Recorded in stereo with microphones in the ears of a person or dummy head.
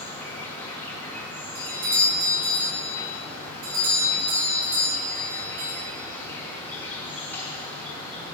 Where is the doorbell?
80° right, 3 m.